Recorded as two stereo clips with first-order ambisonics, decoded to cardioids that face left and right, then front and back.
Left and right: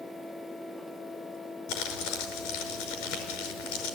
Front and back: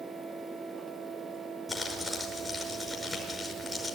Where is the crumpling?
90° left, 5 m.